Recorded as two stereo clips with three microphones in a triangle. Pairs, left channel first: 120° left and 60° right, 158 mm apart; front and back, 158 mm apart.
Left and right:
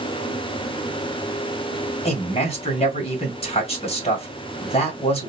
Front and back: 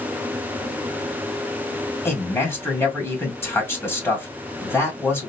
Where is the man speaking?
75° left, 2 m.